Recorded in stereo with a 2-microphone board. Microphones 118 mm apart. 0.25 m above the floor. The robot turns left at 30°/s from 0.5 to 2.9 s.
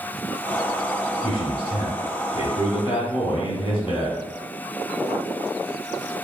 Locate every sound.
1.2 s a man speaking: 115° left, 1.6 m; by 4.2 s 65° left, 1.6 m